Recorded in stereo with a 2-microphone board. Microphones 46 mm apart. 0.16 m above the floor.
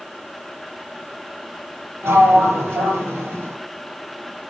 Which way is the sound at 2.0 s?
75° right (ahead or behind).